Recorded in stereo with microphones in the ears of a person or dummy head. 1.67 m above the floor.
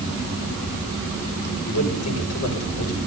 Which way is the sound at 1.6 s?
70° left (ahead or behind).